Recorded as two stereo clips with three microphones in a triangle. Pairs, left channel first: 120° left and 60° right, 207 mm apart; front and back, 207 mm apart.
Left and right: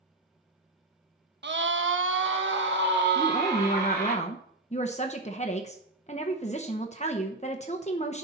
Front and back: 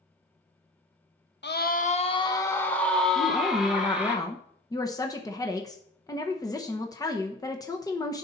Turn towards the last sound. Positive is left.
turn(degrees=70)